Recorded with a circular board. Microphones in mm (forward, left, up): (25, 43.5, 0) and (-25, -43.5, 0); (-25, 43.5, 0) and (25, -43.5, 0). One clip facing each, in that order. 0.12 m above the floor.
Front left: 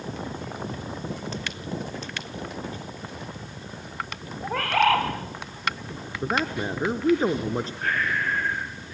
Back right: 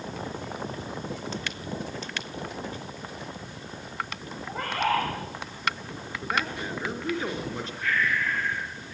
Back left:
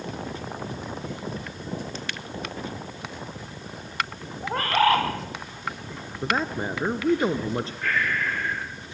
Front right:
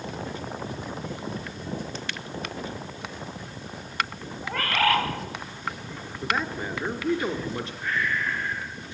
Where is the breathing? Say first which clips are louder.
Back right 2 dB, even; 105° left, 5.5 m.